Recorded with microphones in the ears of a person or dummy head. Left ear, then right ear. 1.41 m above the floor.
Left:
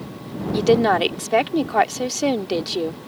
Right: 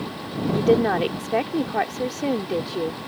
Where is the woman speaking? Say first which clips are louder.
Left 3 dB; 45° left (ahead or behind).